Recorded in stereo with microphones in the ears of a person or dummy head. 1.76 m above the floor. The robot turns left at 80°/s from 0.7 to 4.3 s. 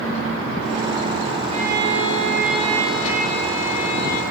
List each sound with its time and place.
1.5 s a violin: 40° right, 6 m; by 4.2 s 100° left, 6 m